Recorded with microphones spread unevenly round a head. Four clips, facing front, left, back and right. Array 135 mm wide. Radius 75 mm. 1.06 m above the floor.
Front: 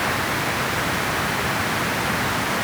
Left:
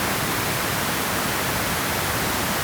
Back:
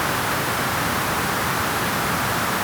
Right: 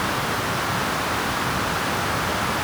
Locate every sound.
Only background noise.